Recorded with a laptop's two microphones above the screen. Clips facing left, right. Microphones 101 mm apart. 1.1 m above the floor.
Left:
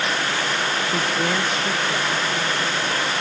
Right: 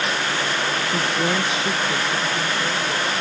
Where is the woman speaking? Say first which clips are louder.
Right 1 dB; centre (ahead or behind); by 3.1 s 25° right (ahead or behind).